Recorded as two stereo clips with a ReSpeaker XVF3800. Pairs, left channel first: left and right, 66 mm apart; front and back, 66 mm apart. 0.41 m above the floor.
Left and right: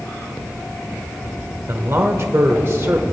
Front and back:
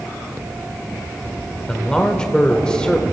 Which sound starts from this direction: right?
A man speaking, at 1.7 s.